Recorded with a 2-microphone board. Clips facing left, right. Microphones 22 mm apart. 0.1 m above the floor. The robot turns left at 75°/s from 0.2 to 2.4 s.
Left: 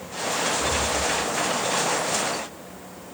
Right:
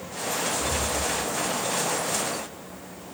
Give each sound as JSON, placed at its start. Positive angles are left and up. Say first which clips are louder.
{"t": 0.6, "sound": "breathing", "louder": "left 3 dB", "side_deg": 80, "distance_m": 6.0}